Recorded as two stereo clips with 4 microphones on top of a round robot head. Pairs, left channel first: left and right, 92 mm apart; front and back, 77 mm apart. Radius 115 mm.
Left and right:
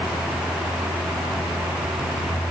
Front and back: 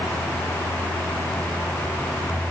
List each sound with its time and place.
Only background noise.